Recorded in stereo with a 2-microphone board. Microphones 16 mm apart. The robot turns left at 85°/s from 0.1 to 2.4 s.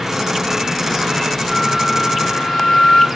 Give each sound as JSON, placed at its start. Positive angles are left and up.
{"t": 1.5, "sound": "a flute", "azimuth_deg": -175, "distance_m": 0.7}